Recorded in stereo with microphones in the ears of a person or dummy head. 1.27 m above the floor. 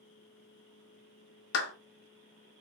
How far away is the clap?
About 0.9 m.